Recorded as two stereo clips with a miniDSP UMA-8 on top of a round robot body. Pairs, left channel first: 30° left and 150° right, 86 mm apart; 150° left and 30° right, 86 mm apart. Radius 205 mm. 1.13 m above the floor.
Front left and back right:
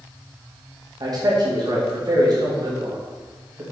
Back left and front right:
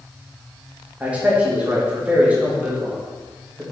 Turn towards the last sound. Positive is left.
turn(degrees=-105)